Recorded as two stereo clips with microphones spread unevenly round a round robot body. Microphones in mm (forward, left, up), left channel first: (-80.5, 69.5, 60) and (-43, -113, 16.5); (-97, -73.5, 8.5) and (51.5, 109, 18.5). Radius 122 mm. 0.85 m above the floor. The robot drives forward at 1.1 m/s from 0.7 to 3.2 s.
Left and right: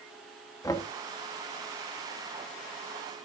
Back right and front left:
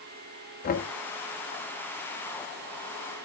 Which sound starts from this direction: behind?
Knocking, at 0.6 s.